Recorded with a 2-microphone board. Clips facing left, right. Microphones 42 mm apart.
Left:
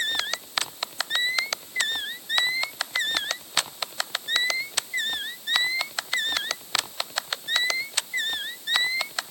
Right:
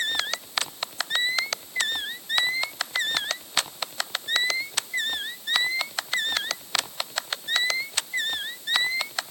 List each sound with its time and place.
Only background noise.